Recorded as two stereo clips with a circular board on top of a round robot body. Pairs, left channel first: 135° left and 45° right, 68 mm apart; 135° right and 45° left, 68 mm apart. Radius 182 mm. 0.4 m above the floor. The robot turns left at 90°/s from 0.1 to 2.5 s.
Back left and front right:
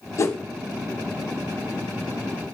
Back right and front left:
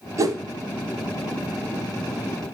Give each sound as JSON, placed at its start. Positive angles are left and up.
{"t": 0.2, "sound": "a whoosh", "azimuth_deg": 90, "distance_m": 0.8}